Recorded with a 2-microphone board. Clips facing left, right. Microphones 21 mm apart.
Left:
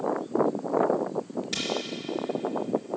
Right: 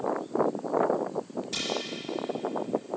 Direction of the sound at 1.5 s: 35° left (ahead or behind).